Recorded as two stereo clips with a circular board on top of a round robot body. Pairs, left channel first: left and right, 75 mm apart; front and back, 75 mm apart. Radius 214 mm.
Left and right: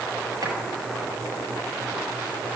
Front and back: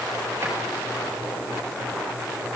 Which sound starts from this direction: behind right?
A drawer, at 0.4 s.